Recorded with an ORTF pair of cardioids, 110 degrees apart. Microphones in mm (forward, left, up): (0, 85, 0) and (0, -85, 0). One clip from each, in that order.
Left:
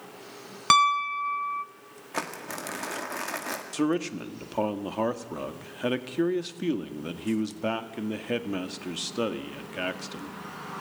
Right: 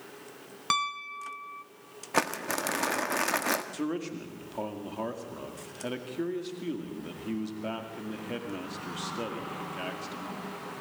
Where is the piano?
35° left, 0.8 m.